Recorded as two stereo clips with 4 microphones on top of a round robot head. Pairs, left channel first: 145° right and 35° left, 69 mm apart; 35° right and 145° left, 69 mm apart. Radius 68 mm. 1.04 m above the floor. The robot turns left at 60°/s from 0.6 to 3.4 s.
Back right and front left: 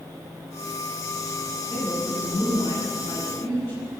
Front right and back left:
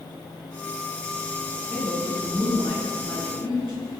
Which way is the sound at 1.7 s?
110° right.